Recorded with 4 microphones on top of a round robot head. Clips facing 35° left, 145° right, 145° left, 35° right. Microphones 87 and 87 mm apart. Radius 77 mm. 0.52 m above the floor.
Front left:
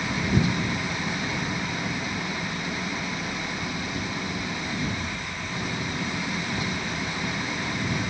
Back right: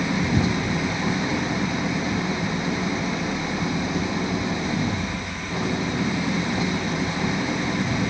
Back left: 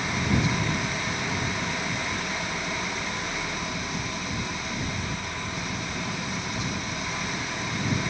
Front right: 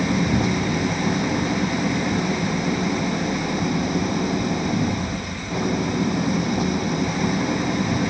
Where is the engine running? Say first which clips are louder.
Back right 3 dB, front right 6 dB; 75° right.